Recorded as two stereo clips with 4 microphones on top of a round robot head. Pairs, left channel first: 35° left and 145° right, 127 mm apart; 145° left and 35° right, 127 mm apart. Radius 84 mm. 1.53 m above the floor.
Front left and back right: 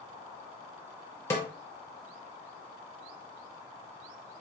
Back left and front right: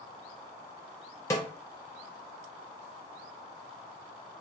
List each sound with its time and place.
1.3 s a snare drum: 90° left, 0.6 m